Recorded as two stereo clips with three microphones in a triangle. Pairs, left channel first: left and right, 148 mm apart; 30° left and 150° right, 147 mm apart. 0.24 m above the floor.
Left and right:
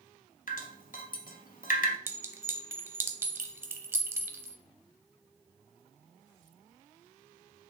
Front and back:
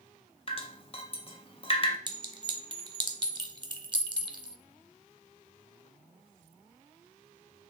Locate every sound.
0.5 s dripping: 75° left, 0.6 m
2.1 s a clink: 150° right, 0.6 m